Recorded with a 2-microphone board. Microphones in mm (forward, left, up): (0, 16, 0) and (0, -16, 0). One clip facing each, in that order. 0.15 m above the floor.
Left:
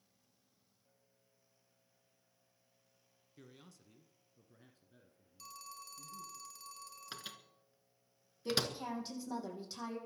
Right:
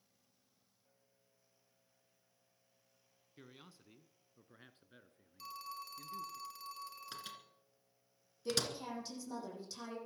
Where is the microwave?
15° left (ahead or behind), 1.8 m.